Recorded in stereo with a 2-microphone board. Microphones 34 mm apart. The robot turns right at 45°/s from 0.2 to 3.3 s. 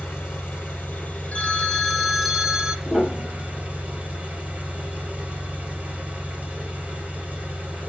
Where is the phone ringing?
130° left, 0.8 m; by 2.8 s 165° right, 0.8 m.